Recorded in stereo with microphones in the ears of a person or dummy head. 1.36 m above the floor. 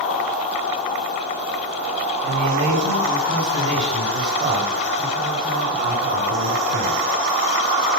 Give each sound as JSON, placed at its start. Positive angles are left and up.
{"t": 2.2, "sound": "a man speaking", "side_deg": -30, "distance_m": 5.0}